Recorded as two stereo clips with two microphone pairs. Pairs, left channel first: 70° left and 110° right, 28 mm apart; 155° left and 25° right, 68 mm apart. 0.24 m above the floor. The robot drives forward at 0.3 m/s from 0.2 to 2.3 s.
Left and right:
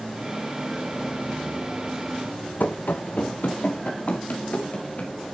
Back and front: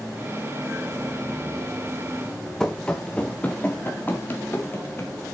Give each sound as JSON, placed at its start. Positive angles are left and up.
{"t": 2.6, "sound": "running footsteps", "azimuth_deg": 75, "distance_m": 1.3}